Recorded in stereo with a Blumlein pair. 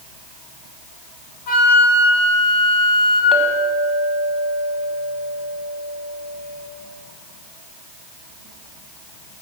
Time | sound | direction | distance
1.5 | a flute | 40° left | 2 m
3.3 | a clink | 15° right | 1.6 m